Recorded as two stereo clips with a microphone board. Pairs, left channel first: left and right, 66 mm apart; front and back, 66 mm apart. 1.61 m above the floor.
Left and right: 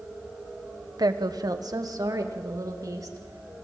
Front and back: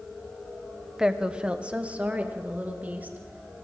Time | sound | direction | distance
1.0 | a woman speaking | 100° right | 1.1 m